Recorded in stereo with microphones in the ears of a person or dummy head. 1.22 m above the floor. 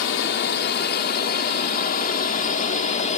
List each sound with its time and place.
0.0 s a drone: 60° left (ahead or behind); by 3.2 s 35° left (ahead or behind)